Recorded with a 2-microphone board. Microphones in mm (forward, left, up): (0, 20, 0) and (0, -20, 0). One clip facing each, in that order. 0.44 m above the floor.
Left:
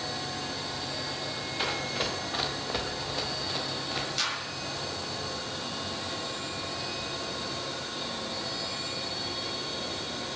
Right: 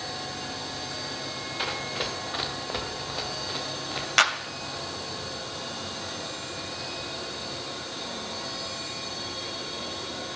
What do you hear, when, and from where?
1.6 s running footsteps: 5° right (ahead or behind), 2 m
4.2 s a clap: 65° right (ahead or behind), 1.6 m